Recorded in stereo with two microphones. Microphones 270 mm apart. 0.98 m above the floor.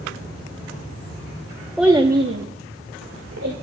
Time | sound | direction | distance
1.8 | a child speaking | centre (ahead or behind) | 1.0 m